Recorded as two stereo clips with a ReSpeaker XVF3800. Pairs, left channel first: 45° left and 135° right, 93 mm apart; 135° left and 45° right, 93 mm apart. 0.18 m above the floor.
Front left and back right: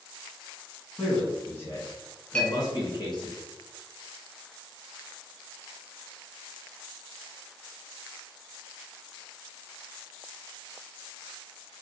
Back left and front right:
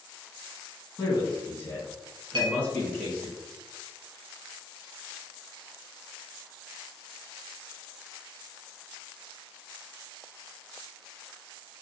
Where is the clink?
30° right, 1.5 m.